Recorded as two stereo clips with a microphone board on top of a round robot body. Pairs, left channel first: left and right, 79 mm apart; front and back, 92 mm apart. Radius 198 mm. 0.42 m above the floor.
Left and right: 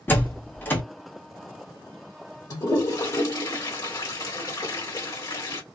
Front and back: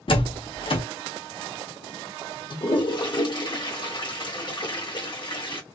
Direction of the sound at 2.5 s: 40° left.